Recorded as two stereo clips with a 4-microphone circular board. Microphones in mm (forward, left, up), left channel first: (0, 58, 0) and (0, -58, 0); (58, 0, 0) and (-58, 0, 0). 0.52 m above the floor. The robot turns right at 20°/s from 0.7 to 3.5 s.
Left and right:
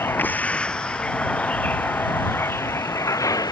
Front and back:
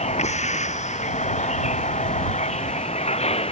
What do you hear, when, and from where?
0.0 s a vehicle: 20° left; by 3.5 s 30° left